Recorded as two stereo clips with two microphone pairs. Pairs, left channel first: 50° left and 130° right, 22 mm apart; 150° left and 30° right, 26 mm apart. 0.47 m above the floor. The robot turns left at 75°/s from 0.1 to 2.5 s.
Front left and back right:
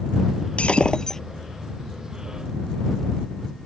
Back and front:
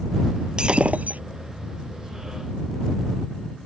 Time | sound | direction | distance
0.6 | breaking glass | 25° left | ?